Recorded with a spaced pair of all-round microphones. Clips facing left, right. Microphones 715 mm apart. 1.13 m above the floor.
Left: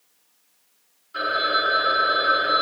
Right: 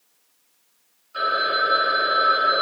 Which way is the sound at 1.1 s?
45° left (ahead or behind).